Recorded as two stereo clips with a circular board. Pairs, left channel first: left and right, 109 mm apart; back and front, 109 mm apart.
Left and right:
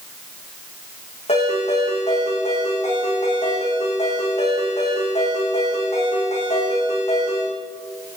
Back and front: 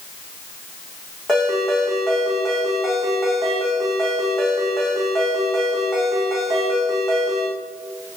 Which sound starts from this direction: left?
A ringtone, at 1.3 s.